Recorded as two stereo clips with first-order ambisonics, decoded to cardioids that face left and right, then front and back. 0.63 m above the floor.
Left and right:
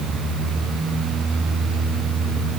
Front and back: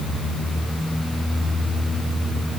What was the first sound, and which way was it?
Only background noise.